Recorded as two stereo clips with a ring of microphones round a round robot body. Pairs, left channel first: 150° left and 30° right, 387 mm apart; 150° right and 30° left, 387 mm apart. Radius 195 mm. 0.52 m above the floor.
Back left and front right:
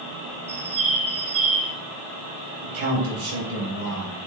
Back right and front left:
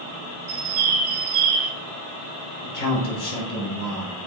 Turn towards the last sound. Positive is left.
turn(degrees=-85)